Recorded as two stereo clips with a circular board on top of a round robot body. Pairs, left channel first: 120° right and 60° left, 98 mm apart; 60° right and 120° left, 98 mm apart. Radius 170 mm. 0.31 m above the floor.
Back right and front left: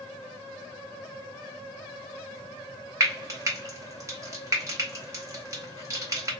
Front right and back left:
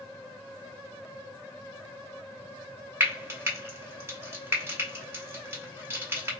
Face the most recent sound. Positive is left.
turn(degrees=80)